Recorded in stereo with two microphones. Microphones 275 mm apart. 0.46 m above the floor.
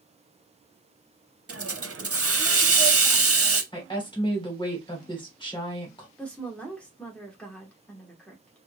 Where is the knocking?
No knocking in this recording.